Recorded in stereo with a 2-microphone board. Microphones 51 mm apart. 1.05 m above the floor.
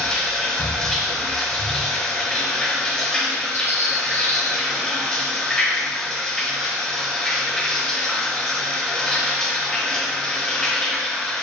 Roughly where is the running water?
Centre.